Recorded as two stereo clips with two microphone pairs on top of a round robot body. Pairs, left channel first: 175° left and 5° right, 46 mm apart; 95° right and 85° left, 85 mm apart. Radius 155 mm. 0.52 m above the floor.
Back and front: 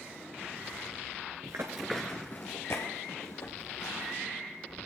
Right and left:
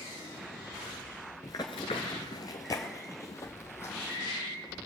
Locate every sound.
1.4 s running footsteps: 25° right, 0.5 m; by 4.2 s 155° right, 1.9 m